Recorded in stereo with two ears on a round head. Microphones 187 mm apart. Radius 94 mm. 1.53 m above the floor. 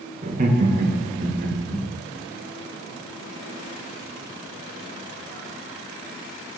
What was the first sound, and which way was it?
Laughter, 35° right (ahead or behind).